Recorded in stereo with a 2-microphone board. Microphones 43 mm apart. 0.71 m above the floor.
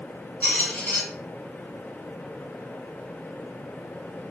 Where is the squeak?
45° left (ahead or behind), 1.1 m.